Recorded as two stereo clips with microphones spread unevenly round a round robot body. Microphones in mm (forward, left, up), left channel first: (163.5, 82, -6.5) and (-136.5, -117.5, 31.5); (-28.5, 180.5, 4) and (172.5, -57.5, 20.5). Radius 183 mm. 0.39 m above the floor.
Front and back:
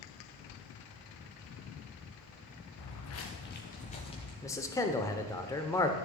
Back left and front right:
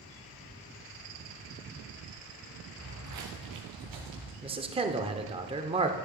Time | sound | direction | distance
2.8 | footsteps | 5° right | 1.4 m
4.4 | a man speaking | 5° right | 0.8 m